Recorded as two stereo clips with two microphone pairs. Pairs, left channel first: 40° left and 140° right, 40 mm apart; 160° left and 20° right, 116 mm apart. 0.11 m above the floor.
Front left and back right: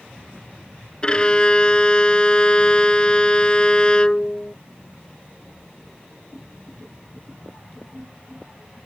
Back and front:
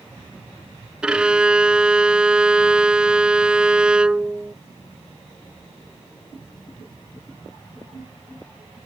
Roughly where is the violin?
Ahead left.